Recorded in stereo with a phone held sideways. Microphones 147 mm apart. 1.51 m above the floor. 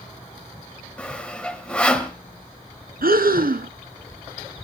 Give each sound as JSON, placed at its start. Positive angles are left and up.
{"t": 1.0, "sound": "sawing", "side_deg": 10, "distance_m": 1.4}
{"t": 3.0, "sound": "breathing", "side_deg": -80, "distance_m": 0.8}